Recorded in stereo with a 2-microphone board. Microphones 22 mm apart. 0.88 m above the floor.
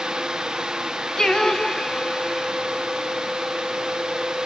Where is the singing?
30° left (ahead or behind), 1.2 m.